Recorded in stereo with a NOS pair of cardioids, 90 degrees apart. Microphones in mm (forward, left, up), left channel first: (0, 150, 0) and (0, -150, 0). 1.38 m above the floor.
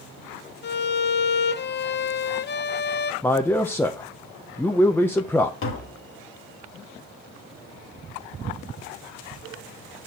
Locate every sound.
0.6 s a violin: 35° left, 0.5 m
3.2 s a man speaking: 5° left, 0.7 m
5.6 s tapping: 45° left, 1.7 m